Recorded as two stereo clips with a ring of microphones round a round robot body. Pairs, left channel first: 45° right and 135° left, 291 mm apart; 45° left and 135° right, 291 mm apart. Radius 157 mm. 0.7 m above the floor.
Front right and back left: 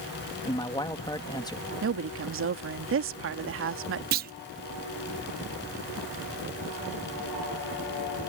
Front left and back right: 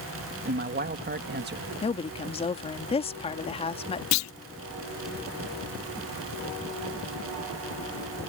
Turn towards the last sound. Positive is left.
turn(degrees=75)